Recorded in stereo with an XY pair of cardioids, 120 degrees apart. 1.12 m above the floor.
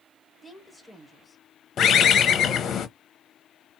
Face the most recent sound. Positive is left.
turn(degrees=45)